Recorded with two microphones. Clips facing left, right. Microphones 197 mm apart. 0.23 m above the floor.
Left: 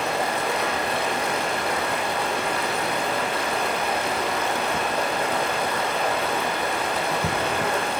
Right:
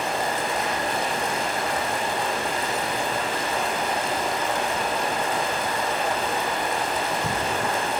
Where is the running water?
70° left (ahead or behind), 8.5 m.